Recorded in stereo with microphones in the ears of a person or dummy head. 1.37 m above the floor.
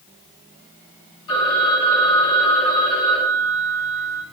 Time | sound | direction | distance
1.3 | a phone ringing | 20° left (ahead or behind) | 2.0 m